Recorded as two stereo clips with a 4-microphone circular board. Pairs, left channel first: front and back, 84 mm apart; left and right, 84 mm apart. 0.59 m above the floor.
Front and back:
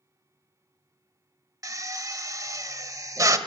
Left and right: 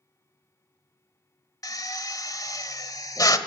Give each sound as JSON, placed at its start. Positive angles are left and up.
{"t": 1.6, "sound": "a drill", "azimuth_deg": 135, "distance_m": 1.3}